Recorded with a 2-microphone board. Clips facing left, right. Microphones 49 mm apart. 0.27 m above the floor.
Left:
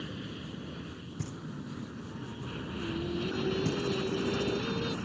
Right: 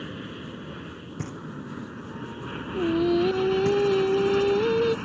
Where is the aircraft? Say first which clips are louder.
Right 4 dB; 30° right (ahead or behind); by 5.1 s 40° right (ahead or behind).